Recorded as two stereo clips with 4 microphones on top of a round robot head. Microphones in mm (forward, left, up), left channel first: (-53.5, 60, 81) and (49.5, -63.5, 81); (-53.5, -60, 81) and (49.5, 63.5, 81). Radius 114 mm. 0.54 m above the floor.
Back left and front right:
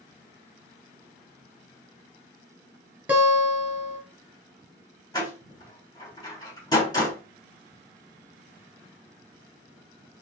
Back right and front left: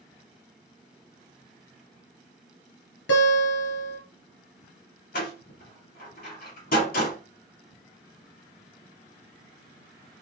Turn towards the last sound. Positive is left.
turn(degrees=-165)